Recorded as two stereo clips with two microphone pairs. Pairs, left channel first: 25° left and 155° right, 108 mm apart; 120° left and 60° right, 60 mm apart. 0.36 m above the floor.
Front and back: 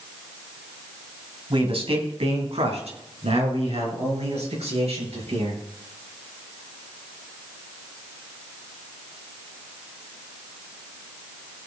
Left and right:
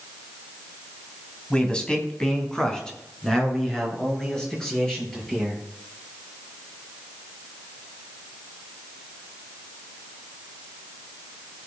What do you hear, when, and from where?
1.5 s a man speaking: 165° right, 2.5 m; by 5.6 s 160° right, 8.5 m